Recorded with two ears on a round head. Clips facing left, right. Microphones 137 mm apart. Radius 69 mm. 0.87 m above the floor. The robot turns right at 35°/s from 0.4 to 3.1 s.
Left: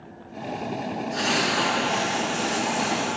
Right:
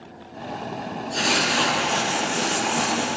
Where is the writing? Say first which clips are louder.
Right 2 dB; 140° right, 5 m; by 3.2 s 75° right, 5 m.